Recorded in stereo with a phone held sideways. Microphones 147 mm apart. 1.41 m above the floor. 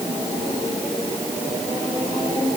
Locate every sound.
Only background noise.